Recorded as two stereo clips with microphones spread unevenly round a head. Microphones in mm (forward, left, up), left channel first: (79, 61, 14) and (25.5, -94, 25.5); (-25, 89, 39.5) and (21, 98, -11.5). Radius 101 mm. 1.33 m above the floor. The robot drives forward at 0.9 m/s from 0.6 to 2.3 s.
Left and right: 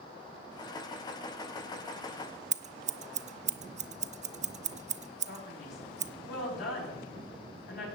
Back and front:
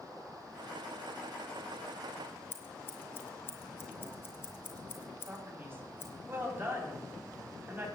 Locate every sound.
2.5 s scissors: 75° right, 0.7 m
5.3 s a man speaking: 60° left, 7.5 m